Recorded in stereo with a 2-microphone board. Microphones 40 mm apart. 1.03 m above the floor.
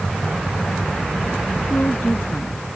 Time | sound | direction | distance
1.7 | a woman speaking | 55° left (ahead or behind) | ?